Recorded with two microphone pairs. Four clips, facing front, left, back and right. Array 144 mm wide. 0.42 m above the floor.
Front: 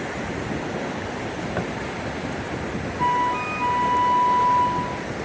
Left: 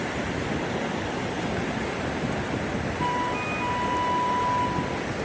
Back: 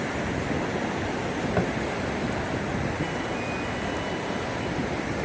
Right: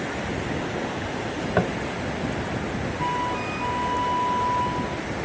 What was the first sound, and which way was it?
Tapping, 100° right.